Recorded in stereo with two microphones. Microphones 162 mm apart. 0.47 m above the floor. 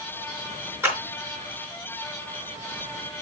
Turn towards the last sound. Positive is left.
turn(degrees=-15)  # may be behind; listen again after turning